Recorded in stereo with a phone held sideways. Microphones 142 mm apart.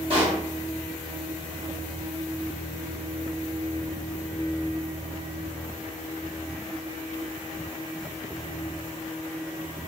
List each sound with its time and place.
0.1 s a pop: 40° right (ahead or behind), 1.2 m